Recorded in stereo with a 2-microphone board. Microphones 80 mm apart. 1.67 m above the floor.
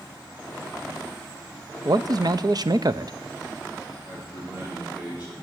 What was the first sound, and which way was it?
A man speaking, 55° right (ahead or behind).